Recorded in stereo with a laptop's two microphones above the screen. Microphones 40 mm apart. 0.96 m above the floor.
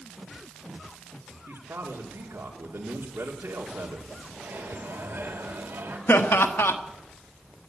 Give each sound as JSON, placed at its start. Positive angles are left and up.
{"t": 1.5, "sound": "a man speaking", "side_deg": -80, "distance_m": 2.0}
{"t": 4.3, "sound": "a microwave", "side_deg": -70, "distance_m": 2.5}
{"t": 6.1, "sound": "laughter", "side_deg": 80, "distance_m": 1.3}